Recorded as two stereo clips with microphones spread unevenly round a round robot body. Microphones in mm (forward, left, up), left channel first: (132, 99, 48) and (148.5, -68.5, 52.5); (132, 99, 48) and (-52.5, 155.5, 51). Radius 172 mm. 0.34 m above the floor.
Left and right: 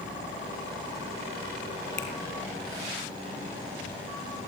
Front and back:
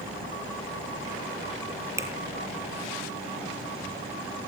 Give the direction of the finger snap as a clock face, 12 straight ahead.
9 o'clock.